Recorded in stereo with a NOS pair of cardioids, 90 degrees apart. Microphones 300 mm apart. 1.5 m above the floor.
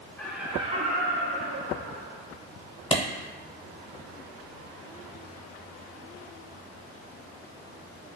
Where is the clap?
20° left, 0.7 m.